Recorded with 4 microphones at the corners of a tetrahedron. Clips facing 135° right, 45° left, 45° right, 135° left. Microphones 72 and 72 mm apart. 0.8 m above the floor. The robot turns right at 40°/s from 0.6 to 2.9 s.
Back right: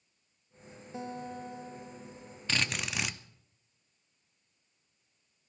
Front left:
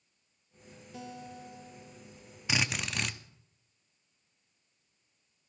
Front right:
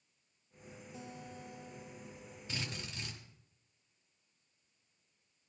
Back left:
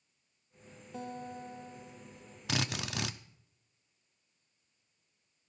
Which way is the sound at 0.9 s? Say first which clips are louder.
Back right 5 dB, back left 8 dB; 165° left.